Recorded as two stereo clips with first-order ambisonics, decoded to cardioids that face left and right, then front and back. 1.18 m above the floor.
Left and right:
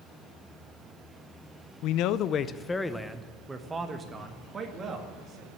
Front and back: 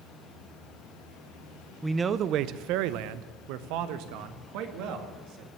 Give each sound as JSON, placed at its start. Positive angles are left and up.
{"t": 1.8, "sound": "a man speaking", "azimuth_deg": 95, "distance_m": 0.6}